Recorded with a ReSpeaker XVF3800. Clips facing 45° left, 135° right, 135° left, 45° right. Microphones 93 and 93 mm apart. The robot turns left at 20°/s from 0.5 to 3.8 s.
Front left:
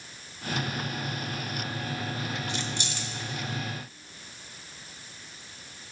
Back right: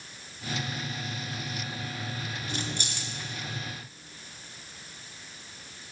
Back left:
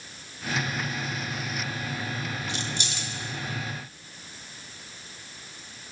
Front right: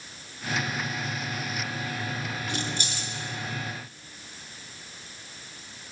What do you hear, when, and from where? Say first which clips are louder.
2.5 s keys jangling: front left 1 dB, front right 1 dB; 85° right, 1.5 m; by 3.1 s 100° right, 1.5 m